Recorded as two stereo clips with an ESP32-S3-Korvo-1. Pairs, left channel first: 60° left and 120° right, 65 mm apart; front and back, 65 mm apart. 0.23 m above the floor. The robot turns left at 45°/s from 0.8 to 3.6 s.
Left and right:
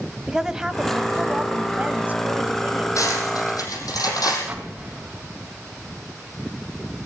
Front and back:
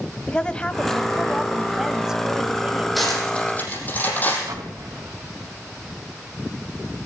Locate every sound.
0.3 s a woman speaking: 50° right, 1.0 m; by 2.9 s 145° right, 1.0 m
3.0 s cutlery clinking: 90° left, 6 m; by 4.4 s 60° left, 6 m
4.5 s an explosion: 170° left, 2.5 m